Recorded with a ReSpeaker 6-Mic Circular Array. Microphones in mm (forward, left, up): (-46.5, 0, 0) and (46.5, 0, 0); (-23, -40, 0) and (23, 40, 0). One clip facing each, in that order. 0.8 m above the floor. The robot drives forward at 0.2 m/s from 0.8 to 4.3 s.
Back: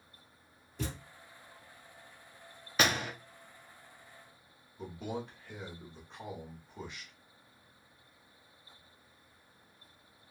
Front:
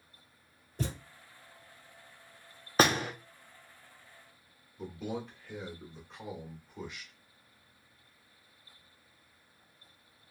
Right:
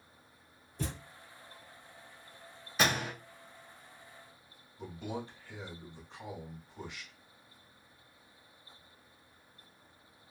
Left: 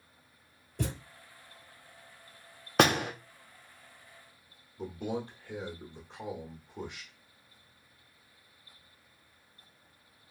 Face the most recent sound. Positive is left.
turn(degrees=95)